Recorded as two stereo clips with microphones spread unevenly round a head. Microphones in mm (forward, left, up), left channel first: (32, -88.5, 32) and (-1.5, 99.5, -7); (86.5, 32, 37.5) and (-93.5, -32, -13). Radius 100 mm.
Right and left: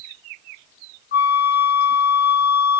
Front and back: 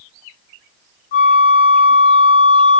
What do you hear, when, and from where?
1.1 s a flute: 35° right, 0.7 m